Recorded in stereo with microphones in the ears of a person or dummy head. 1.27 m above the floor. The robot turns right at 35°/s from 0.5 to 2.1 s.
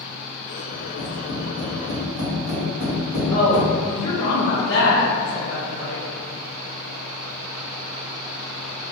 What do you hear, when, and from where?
0.7 s tapping: 25° left (ahead or behind), 1.7 m; by 3.7 s 15° right (ahead or behind), 1.7 m
3.3 s a woman speaking: 45° left (ahead or behind), 1.0 m